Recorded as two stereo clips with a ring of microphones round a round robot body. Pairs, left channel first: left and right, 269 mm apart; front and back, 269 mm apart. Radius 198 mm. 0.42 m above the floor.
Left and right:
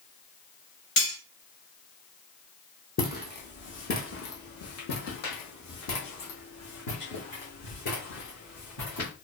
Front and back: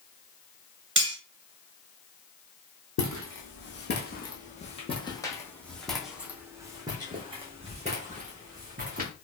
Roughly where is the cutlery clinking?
Behind left.